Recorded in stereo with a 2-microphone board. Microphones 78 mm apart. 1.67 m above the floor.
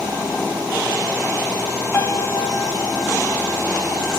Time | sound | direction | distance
1.9 | a piano | 30° left (ahead or behind) | 1.2 m